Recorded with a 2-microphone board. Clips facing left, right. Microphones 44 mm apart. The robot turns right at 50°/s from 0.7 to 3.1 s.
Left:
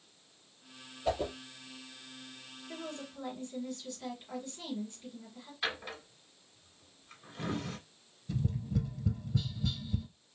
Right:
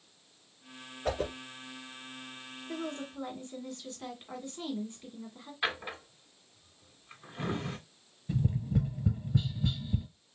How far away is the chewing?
No chewing in this recording.